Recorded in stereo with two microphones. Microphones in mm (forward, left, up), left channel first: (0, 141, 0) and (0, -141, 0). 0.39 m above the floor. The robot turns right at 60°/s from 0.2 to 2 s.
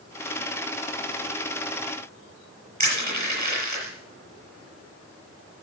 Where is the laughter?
I don't hear laughter.